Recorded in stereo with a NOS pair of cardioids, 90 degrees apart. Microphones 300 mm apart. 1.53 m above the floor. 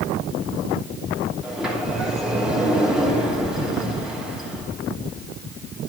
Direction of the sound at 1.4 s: Straight ahead.